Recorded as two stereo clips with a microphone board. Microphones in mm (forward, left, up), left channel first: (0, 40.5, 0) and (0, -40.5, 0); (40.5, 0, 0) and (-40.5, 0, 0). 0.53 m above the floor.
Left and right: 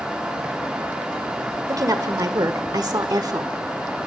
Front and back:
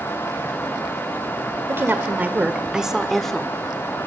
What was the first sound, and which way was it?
A woman speaking, 125° right.